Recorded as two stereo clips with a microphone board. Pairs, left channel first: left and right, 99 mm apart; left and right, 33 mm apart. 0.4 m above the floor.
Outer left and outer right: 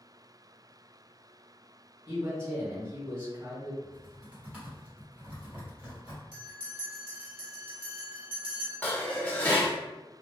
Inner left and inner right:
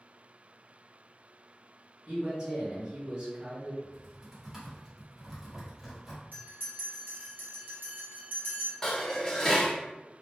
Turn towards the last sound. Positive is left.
turn(degrees=15)  # may be behind; listen again after turning